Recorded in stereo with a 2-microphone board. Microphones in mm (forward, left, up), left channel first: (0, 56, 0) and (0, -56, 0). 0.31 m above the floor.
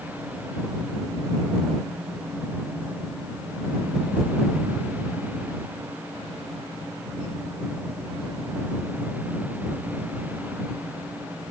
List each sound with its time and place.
Only background noise.